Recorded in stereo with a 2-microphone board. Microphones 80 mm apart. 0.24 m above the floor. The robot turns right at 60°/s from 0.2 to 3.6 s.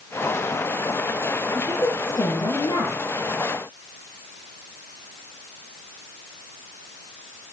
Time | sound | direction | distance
1.5 | a woman speaking | 10° left | 4.5 m